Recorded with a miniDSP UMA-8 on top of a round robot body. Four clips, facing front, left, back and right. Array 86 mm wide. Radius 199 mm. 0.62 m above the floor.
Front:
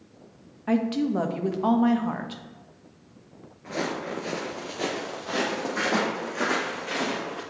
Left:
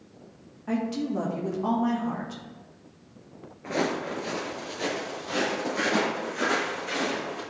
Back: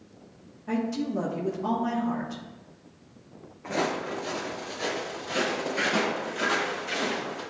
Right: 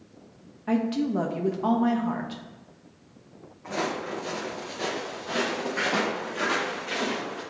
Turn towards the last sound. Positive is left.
turn(degrees=-10)